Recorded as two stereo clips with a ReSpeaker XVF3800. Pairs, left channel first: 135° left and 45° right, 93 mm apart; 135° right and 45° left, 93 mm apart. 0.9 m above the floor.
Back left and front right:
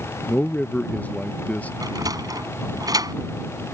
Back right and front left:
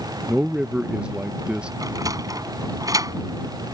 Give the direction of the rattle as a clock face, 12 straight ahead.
I don't hear a rattle.